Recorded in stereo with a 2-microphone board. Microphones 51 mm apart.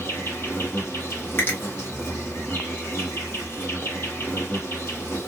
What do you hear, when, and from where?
0.0 s an insect: 50° left (ahead or behind), 1.8 m
1.4 s a finger snap: 45° left (ahead or behind), 1.3 m